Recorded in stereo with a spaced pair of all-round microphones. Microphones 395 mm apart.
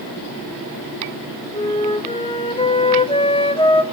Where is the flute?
15° left (ahead or behind), 1.3 m.